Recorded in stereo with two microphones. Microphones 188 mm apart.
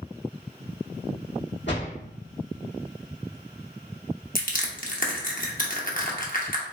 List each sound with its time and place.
1.7 s a door slam: 80° left, 1.8 m
4.3 s crushing: 50° left (ahead or behind), 0.8 m